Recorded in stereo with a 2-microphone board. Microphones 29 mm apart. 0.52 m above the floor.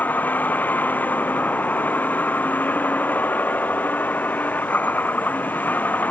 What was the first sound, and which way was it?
A vehicle, 80° left.